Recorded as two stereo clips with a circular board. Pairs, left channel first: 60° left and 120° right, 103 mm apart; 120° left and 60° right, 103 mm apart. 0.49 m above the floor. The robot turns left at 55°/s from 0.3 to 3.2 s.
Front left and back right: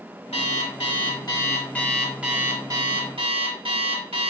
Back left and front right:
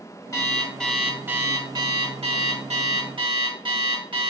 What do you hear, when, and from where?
0.3 s an alarm clock: 60° left, 1.1 m; by 4.3 s 95° right, 1.1 m